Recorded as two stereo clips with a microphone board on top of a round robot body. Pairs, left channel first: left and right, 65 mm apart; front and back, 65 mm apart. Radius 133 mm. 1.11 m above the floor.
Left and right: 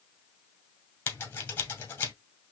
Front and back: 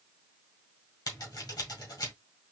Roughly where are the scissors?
Ahead left.